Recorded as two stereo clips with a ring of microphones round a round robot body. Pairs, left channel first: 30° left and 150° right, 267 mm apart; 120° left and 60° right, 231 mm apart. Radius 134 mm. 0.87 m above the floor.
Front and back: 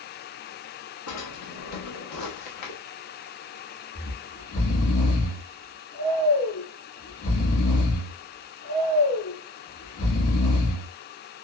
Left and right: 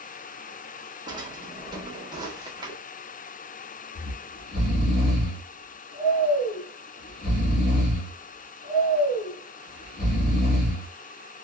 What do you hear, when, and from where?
1.1 s a drawer: 15° left, 1.1 m
4.0 s snoring: 65° left, 2 m